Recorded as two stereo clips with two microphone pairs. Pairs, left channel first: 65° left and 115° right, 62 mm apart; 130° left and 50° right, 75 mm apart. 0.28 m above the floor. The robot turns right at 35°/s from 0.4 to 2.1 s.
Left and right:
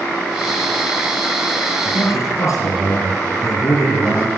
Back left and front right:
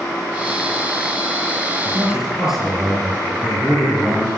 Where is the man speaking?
25° left, 7 m; by 4.3 s 35° left, 7 m.